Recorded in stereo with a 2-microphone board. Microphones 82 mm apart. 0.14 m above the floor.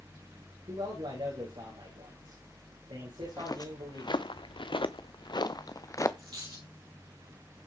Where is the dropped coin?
70° right (ahead or behind), 6 m.